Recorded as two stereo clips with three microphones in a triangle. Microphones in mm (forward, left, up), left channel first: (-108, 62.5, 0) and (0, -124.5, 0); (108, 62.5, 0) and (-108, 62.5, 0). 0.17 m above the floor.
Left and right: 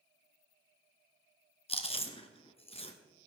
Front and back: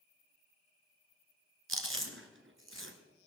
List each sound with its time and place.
1.7 s chewing: straight behind, 1.5 m